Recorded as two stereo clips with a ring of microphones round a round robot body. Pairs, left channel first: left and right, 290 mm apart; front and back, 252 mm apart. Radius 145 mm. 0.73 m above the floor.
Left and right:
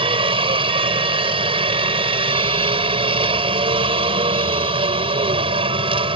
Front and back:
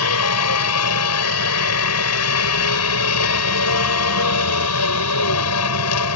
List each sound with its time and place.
0.0 s a helicopter: 20° right